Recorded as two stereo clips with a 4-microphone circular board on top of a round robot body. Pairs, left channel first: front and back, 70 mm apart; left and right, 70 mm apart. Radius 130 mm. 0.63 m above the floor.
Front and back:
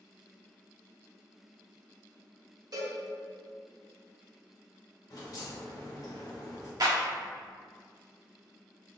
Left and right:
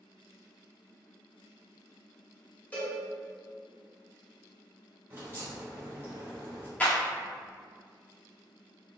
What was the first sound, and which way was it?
A cowbell, 160° left.